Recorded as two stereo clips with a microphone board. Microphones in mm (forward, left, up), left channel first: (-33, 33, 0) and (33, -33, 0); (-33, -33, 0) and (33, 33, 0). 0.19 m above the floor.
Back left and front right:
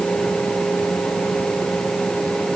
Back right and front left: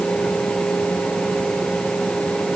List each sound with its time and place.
Only background noise.